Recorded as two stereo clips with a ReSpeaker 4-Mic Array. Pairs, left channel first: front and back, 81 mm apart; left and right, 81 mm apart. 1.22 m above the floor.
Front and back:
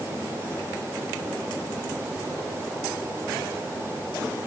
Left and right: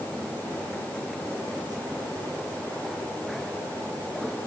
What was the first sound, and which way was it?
Only background noise.